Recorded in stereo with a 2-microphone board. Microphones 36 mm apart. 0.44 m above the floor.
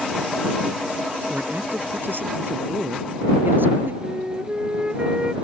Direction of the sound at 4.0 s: 30° right (ahead or behind).